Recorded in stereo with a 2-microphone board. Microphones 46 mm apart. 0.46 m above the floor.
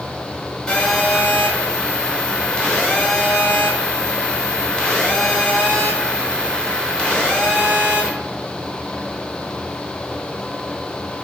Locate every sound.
0.7 s a phone buzzing: 20° left (ahead or behind), 1.0 m